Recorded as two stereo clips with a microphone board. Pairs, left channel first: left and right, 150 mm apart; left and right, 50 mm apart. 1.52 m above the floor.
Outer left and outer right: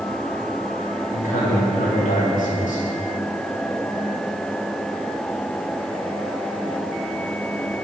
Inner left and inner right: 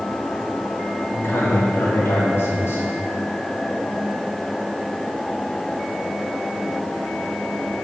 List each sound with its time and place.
1.1 s a man speaking: 60° left (ahead or behind), 2 m